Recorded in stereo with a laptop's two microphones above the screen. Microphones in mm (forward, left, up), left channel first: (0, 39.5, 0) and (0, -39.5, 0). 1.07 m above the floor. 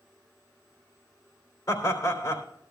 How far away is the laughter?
About 3.5 m.